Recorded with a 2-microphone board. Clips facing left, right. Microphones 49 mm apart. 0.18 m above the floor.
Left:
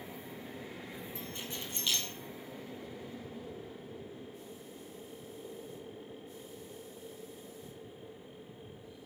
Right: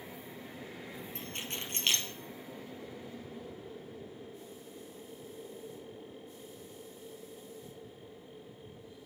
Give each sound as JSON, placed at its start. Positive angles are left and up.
{"t": 1.1, "sound": "keys jangling", "side_deg": -65, "distance_m": 3.0}